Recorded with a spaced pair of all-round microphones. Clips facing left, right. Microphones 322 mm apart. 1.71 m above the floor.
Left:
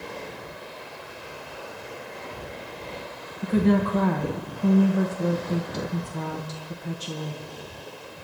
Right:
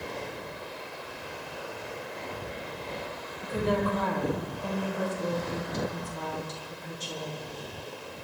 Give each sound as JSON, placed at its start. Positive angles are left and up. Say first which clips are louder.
{"t": 3.4, "sound": "a woman speaking", "louder": "left 7 dB", "side_deg": 75, "distance_m": 1.2}